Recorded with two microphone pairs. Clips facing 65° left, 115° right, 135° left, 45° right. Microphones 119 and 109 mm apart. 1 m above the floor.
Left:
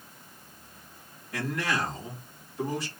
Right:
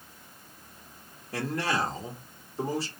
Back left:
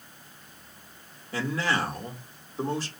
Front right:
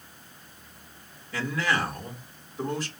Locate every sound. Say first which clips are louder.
1.3 s a man speaking: right 1 dB, even; 165° right, 2 m